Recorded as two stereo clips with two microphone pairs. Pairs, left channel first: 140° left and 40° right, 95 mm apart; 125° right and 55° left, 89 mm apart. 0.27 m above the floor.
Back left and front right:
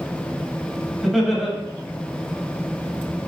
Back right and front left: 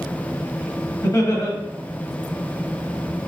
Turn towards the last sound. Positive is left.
turn(degrees=-130)